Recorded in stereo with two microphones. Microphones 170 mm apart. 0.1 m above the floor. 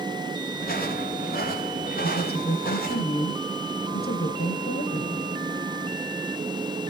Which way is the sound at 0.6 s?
60° left (ahead or behind).